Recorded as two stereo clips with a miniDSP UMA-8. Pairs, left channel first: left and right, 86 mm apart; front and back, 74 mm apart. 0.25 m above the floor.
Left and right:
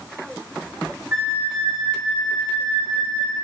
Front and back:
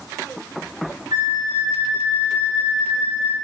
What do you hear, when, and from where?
1.1 s a flute: 155° right, 3 m